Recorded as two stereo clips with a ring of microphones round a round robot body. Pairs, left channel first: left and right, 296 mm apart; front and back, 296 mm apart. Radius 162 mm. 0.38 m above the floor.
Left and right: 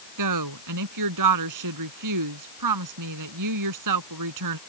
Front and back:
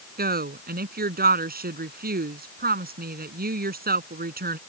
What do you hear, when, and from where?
0.2 s a woman speaking: 120° right